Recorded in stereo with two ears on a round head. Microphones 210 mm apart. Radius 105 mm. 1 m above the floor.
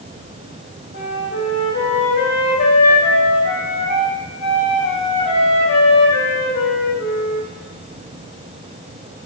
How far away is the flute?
About 4 m.